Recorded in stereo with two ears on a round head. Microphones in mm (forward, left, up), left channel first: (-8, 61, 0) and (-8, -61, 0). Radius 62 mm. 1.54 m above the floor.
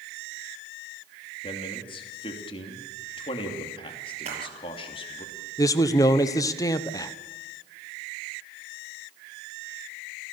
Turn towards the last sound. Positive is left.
turn(degrees=25)  # may be behind; listen again after turning